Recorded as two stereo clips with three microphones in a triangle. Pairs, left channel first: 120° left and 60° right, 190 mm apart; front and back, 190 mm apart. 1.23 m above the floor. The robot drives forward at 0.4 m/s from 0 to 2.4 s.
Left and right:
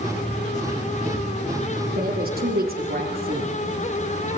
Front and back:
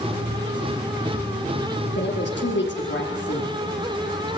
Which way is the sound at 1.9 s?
20° right.